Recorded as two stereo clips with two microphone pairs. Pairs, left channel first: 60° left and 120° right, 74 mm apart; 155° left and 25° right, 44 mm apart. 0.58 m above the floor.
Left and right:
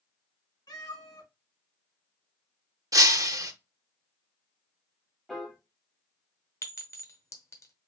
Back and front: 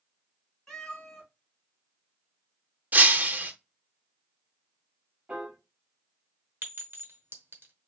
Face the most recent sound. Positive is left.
turn(degrees=10)